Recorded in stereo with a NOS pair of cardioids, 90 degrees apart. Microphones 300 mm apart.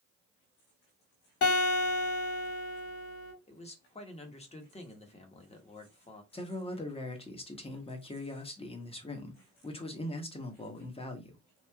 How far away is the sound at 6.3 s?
About 0.9 m.